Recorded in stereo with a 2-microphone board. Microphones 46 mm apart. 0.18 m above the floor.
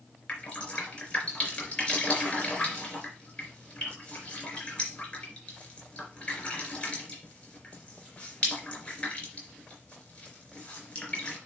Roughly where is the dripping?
Centre.